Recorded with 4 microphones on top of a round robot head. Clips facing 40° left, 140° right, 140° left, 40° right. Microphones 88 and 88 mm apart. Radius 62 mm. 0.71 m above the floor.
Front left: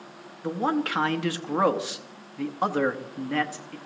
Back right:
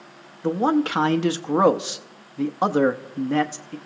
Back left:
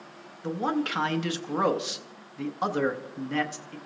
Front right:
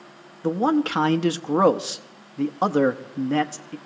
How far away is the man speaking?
About 0.8 m.